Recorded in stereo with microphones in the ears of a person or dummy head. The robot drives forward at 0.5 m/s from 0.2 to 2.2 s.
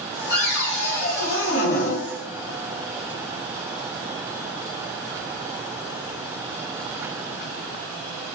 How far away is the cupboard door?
About 1.6 m.